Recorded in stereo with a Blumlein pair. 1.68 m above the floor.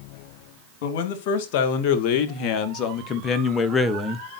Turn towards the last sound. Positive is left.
turn(degrees=-10)